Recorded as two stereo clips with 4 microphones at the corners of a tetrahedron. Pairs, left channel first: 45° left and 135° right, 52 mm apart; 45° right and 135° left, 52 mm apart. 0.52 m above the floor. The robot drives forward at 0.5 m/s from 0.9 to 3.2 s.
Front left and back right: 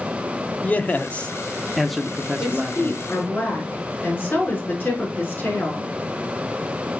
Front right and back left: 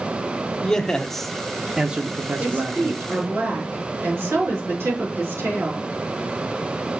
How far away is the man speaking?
About 0.7 m.